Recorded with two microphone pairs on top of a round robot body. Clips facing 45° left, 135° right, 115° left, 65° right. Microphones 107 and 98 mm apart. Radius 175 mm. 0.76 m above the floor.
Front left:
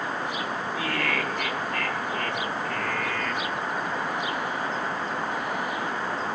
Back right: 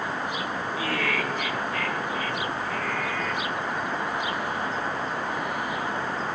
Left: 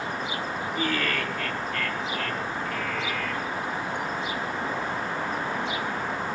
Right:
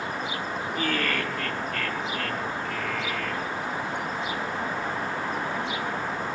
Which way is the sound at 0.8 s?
50° right.